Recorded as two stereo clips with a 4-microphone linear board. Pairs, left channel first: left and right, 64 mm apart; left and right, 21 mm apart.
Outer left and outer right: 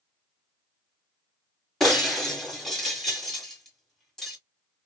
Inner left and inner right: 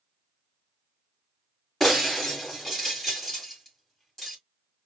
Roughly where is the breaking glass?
Centre.